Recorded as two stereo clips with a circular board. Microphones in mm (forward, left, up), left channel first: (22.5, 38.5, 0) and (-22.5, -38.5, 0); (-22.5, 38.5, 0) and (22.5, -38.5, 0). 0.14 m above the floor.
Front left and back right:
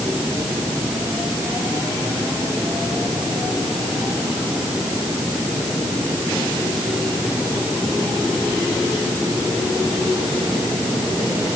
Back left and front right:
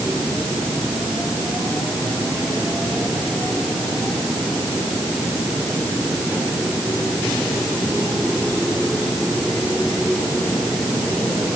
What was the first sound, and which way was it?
Only background noise.